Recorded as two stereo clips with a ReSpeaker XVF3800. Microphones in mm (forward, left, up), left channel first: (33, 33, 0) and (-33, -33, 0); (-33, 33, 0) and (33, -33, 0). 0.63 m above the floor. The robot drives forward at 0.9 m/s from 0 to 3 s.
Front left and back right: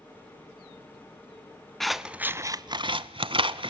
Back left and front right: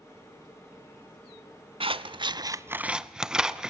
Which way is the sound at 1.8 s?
40° right.